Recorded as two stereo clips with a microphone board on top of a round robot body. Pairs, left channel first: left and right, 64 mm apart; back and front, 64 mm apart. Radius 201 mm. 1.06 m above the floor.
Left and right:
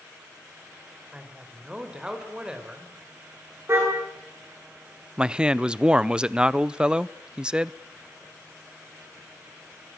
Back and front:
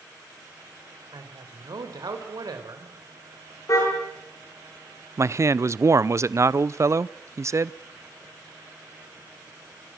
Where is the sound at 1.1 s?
15° right, 4 m.